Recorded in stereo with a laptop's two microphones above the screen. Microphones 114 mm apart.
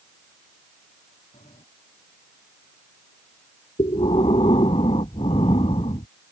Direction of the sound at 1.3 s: 85° left.